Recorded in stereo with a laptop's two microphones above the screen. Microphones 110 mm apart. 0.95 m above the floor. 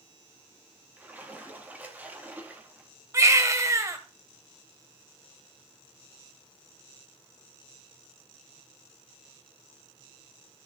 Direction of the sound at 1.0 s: 15° right (ahead or behind).